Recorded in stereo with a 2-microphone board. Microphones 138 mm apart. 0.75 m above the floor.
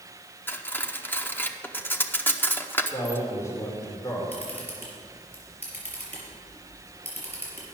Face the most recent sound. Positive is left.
turn(degrees=10)  # may be behind; listen again after turning